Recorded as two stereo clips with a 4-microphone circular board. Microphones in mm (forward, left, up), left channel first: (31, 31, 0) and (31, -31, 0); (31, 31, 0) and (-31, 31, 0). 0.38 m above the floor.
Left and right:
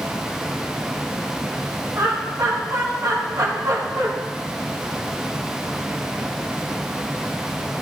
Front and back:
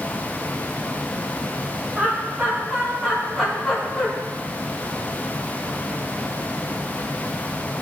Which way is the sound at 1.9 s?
115° right.